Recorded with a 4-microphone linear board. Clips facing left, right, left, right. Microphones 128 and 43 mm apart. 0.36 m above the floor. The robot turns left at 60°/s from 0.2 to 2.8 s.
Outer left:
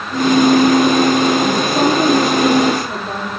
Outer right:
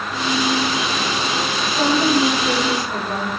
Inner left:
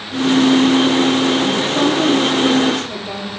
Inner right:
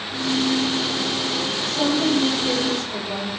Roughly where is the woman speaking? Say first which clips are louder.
Outer left 5 dB, inner left 6 dB; behind left.